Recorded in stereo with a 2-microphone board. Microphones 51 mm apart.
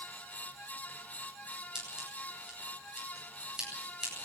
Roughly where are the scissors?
Centre.